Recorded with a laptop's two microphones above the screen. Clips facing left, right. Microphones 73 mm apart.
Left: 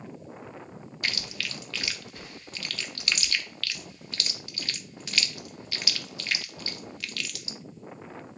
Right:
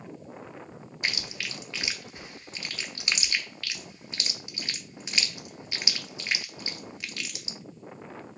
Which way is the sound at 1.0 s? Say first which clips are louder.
Right 1 dB; 20° right (ahead or behind).